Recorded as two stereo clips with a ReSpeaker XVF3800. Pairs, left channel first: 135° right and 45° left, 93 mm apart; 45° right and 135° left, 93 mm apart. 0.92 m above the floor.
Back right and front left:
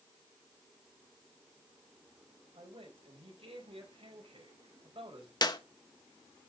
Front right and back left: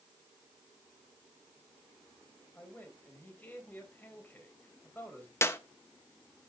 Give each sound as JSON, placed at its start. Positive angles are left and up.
{"t": 2.5, "sound": "a man speaking", "azimuth_deg": 25, "distance_m": 4.0}
{"t": 5.4, "sound": "a clap", "azimuth_deg": -105, "distance_m": 0.9}